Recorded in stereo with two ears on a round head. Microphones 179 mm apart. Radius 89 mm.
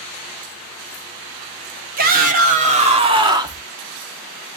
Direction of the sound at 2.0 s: 50° right (ahead or behind).